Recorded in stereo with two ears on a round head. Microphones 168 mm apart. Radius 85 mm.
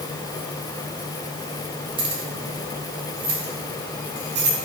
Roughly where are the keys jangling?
Right.